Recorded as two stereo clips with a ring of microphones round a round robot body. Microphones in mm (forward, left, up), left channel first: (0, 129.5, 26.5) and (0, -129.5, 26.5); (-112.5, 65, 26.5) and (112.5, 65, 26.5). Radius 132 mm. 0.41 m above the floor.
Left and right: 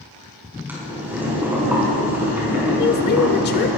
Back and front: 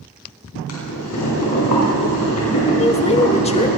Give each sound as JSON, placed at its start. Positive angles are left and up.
{"t": 0.7, "sound": "boiling", "azimuth_deg": -175, "distance_m": 4.5}
{"t": 2.8, "sound": "a woman speaking", "azimuth_deg": 125, "distance_m": 1.1}